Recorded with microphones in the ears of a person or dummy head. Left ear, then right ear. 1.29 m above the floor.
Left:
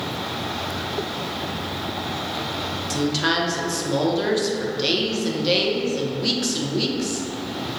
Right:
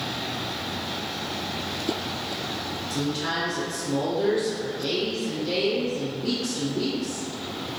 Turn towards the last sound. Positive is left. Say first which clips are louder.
# left 7 dB
turn(degrees=45)  # may be behind; listen again after turning